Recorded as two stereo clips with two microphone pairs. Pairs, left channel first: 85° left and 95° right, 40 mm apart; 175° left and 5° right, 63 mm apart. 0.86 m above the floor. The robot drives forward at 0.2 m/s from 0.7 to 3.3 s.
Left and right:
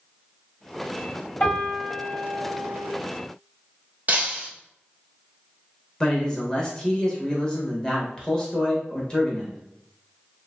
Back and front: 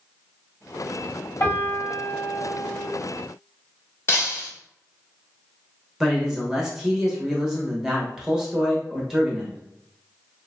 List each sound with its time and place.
1.4 s a piano: 130° left, 1.8 m; by 2.9 s 135° left, 2.0 m
4.1 s breaking glass: 145° right, 0.9 m
6.0 s a man speaking: 65° left, 0.8 m